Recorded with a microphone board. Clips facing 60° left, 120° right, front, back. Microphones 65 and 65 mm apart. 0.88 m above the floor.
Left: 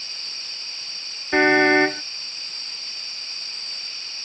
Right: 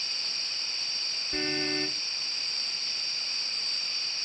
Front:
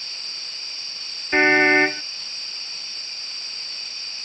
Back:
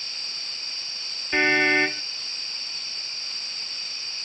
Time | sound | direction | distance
1.3 | a car horn | 65° left | ?